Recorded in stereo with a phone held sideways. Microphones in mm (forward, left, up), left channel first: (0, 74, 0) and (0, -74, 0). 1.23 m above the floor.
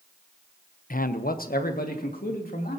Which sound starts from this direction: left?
A man speaking, at 0.9 s.